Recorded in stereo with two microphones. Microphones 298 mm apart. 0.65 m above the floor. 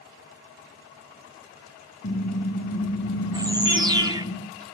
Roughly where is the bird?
Centre.